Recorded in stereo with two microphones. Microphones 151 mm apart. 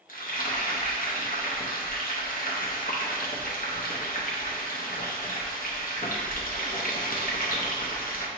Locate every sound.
0.1 s frying: 70° left (ahead or behind), 0.7 m